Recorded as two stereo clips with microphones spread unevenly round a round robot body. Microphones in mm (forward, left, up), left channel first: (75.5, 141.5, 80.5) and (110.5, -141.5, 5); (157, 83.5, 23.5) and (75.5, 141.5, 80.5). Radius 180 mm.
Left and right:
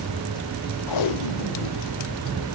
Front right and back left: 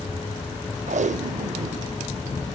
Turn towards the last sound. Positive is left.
turn(degrees=125)